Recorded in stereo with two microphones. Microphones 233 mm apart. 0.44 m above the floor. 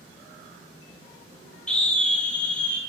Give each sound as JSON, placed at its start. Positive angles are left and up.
{"t": 1.7, "sound": "a scream", "side_deg": 5, "distance_m": 1.7}